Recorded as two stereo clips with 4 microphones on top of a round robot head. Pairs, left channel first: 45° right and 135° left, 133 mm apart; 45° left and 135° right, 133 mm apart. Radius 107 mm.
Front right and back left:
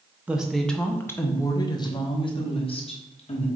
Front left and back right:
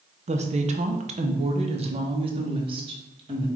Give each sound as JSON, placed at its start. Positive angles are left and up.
{"t": 0.3, "sound": "a woman speaking", "azimuth_deg": -145, "distance_m": 0.8}